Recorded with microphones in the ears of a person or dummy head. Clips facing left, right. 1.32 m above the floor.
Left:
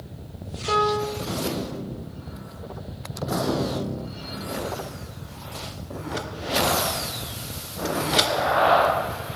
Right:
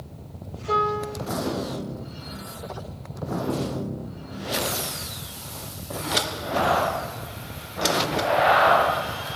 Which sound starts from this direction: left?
A piano, at 0.7 s.